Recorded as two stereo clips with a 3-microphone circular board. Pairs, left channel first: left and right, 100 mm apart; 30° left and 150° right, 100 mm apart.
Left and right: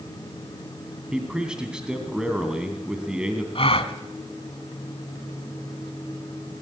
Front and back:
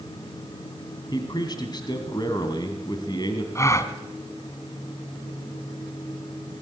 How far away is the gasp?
About 1.6 m.